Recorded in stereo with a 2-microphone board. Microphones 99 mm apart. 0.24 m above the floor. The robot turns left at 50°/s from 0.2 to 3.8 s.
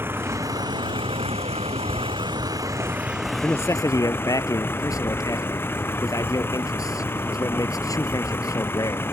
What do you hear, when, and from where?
0.0 s a vehicle: 20° right; by 9.1 s 160° left
3.4 s a man speaking: 20° left (ahead or behind); by 9.1 s 35° left (ahead or behind)